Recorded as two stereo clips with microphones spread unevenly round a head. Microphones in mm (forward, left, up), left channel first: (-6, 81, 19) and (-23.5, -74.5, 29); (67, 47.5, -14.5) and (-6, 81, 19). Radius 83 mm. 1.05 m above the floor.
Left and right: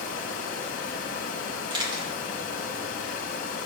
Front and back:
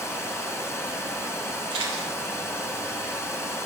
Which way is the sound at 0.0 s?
45° left.